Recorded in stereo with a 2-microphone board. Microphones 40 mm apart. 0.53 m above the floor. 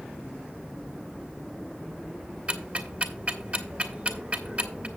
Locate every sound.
2.5 s ticking: 30° right (ahead or behind), 1.6 m